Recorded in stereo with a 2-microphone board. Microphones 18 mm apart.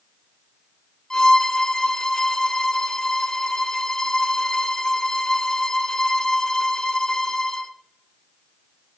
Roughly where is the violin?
Left.